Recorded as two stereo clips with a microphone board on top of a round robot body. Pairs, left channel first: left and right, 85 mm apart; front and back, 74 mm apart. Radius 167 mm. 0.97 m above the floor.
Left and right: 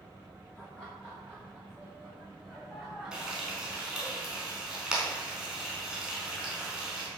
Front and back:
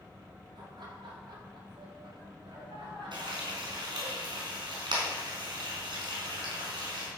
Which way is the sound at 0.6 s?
165° left.